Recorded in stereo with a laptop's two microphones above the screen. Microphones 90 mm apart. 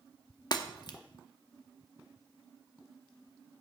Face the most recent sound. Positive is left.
turn(degrees=45)  # may be behind; listen again after turning